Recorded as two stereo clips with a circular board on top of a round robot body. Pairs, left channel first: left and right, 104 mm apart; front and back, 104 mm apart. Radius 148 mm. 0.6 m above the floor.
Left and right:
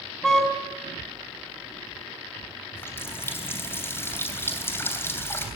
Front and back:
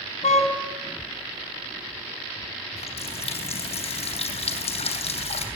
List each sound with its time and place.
0.2 s a car horn: 5° left, 3.5 m
2.8 s a running tap: 20° left, 3 m